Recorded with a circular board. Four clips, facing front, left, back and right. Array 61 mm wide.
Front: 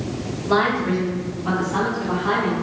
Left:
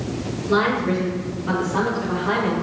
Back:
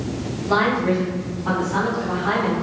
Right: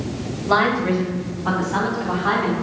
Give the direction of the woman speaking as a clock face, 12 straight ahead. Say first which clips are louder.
Right 2 dB, even; 3 o'clock.